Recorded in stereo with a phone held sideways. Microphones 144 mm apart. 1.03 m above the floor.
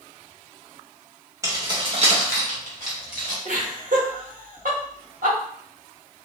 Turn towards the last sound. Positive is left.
turn(degrees=-70)  # may be behind; listen again after turning